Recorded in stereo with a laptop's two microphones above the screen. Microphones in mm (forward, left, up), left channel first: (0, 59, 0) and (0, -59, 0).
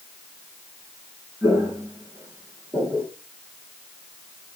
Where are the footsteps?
30° right (ahead or behind), 4.5 m; by 3.1 s 20° right (ahead or behind), 2.5 m.